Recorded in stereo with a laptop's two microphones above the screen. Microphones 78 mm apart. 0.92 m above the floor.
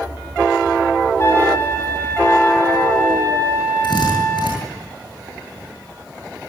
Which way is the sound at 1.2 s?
35° left (ahead or behind).